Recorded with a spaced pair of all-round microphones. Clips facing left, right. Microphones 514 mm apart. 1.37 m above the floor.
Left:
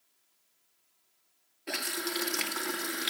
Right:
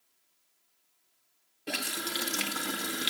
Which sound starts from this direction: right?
A running tap, at 1.7 s.